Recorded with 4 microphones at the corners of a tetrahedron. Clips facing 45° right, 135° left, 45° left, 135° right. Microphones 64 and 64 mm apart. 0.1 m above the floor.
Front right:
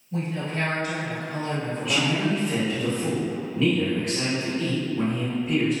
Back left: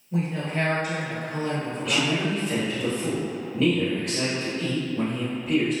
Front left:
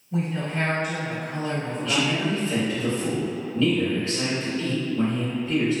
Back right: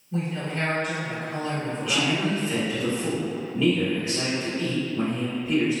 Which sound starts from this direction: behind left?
A woman speaking, at 0.1 s.